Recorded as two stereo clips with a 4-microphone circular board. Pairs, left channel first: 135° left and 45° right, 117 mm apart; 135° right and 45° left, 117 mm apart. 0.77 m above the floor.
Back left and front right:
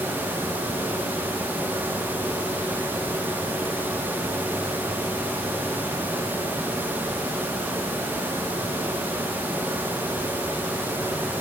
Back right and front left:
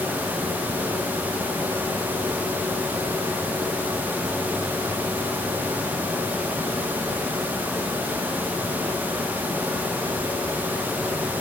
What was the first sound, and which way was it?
Only background noise.